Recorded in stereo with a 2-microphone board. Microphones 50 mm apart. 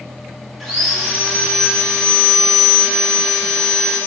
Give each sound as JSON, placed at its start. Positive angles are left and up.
{"t": 0.6, "sound": "sawing", "side_deg": -5, "distance_m": 0.7}